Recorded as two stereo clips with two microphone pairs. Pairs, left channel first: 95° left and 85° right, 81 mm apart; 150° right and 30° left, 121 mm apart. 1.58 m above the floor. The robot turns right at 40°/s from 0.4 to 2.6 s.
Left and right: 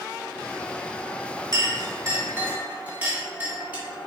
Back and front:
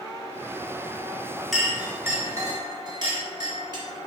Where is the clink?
60° right, 2 m; by 3.8 s 15° right, 2 m.